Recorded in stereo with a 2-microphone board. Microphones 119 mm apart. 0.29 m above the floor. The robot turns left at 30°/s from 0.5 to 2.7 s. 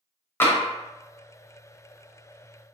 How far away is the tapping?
About 0.6 m.